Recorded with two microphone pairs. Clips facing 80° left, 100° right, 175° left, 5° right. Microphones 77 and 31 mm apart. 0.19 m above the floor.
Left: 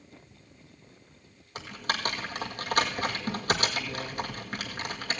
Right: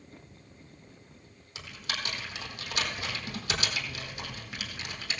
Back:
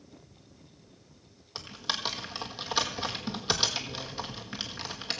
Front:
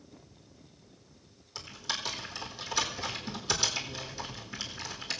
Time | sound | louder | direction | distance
1.6 | typing on a keyboard | left 6 dB, back 2 dB | 120° left | 1.9 m